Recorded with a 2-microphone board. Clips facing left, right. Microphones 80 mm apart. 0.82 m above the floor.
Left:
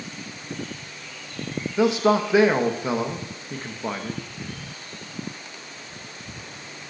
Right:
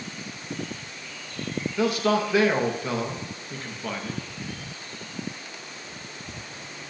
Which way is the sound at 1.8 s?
20° left (ahead or behind).